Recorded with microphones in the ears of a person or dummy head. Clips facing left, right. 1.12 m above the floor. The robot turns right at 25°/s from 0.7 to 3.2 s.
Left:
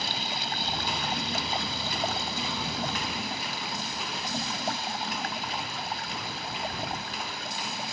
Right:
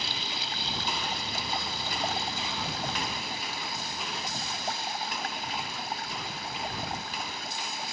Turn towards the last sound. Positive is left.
turn(degrees=115)